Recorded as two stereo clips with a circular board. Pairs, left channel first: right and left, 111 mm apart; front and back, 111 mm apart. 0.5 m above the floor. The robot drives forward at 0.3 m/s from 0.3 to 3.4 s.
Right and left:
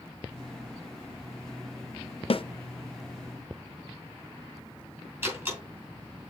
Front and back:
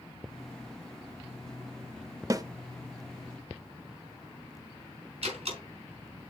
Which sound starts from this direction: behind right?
A snare drum, at 2.3 s.